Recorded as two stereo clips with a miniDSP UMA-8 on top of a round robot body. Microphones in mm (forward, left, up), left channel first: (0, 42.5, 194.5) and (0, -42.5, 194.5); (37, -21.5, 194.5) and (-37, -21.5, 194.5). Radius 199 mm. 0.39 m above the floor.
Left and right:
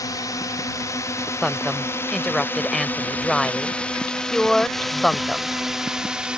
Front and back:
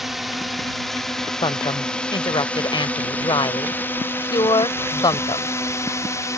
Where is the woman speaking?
5° left.